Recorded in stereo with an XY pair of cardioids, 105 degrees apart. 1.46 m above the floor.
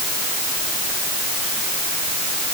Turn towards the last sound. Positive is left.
No sound to turn to.